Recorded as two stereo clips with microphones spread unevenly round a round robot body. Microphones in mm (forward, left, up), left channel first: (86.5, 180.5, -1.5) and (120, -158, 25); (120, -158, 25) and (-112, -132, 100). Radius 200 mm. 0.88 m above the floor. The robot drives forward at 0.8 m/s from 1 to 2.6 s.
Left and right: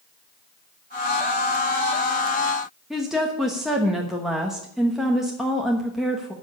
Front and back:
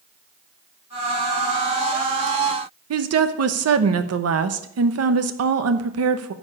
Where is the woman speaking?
Straight behind, 1.0 m.